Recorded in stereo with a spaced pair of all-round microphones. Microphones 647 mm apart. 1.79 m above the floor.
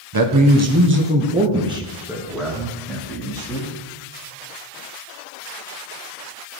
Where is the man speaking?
35° right (ahead or behind), 0.9 m; by 3.7 s 5° left (ahead or behind), 3 m.